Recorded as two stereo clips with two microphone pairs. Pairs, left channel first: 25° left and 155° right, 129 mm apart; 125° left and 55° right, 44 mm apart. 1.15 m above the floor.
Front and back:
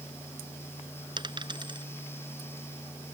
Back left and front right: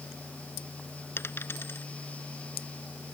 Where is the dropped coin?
155° left.